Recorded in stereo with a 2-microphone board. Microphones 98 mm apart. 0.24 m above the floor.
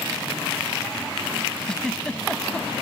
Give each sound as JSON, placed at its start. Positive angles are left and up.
{"t": 1.7, "sound": "a giggle", "side_deg": 10}